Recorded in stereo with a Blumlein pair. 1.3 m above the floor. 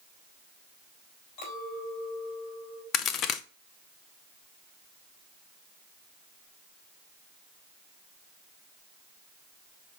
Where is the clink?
40° left, 4 m.